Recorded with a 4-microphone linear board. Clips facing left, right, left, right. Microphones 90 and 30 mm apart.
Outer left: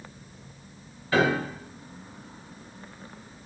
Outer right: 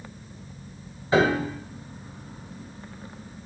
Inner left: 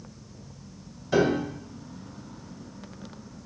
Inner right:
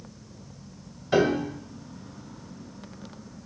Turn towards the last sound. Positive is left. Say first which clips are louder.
# outer right 2 dB, inner right 1 dB
turn(degrees=-25)  # may be behind; listen again after turning